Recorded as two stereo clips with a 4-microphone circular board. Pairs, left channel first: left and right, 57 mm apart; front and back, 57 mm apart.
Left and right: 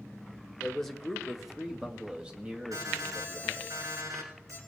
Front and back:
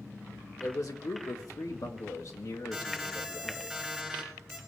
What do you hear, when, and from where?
0.6 s a man speaking: 10° left, 1.6 m; by 3.7 s 35° right, 2.5 m
2.7 s an alarm: 85° right, 7 m